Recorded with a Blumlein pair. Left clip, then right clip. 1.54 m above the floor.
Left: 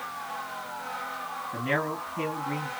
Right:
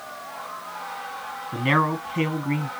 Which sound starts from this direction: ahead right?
A man speaking, at 1.5 s.